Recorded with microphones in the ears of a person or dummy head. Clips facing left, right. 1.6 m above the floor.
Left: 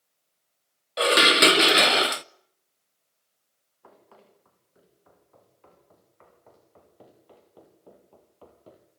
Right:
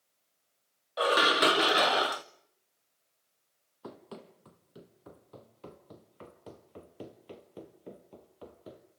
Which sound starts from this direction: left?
Dishes clattering, at 1.0 s.